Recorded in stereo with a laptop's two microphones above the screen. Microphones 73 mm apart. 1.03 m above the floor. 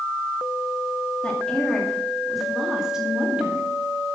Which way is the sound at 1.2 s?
15° left (ahead or behind).